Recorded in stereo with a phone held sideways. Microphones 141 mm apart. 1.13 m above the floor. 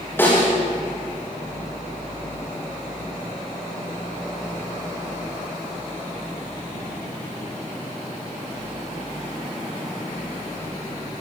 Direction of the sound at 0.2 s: 15° left (ahead or behind).